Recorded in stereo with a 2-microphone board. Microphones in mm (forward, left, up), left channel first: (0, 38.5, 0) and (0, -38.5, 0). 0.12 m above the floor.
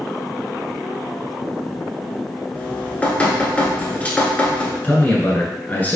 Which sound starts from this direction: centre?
Dripping, at 2.5 s.